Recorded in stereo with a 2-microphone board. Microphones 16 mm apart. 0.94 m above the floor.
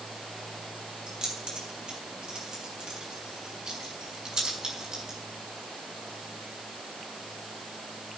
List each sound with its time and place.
1.1 s keys jangling: 80° right, 7 m; by 5.2 s 55° right (ahead or behind), 5 m